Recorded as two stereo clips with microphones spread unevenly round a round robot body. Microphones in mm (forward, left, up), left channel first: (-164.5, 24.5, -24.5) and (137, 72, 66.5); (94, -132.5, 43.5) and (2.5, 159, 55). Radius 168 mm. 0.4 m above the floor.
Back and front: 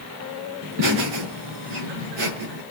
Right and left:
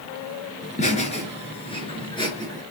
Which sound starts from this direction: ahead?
Laughter, at 0.6 s.